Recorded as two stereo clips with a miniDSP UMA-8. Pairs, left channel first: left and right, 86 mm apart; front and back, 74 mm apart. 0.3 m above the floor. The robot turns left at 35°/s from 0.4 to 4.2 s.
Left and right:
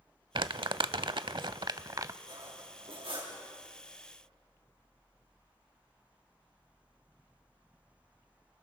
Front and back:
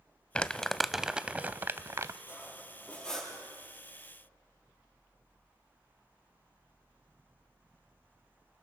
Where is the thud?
No thud in this recording.